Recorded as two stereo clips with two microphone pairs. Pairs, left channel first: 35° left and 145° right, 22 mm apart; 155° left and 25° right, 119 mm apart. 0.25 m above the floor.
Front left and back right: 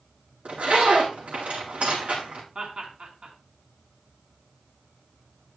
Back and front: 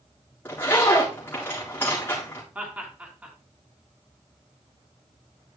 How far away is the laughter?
About 3 m.